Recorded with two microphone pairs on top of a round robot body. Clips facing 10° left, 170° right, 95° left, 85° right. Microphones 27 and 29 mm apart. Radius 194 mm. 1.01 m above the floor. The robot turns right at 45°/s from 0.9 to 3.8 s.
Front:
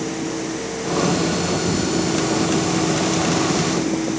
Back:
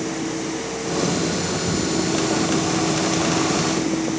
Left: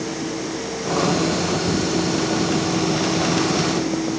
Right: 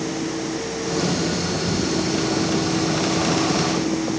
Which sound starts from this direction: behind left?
Ticking, at 1.7 s.